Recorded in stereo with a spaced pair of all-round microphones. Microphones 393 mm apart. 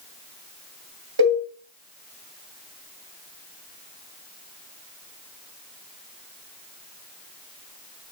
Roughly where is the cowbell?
Right.